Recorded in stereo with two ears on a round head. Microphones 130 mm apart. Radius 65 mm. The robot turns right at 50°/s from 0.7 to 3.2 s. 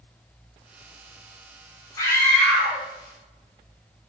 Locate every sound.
2.0 s a scream: 150° left, 2 m; by 2.8 s 165° right, 2 m